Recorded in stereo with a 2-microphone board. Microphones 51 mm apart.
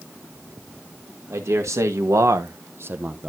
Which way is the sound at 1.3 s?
70° right (ahead or behind).